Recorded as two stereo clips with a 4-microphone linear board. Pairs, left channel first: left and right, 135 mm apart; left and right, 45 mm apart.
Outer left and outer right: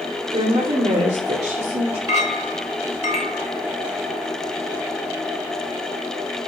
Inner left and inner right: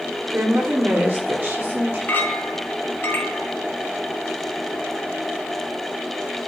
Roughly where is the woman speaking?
Right.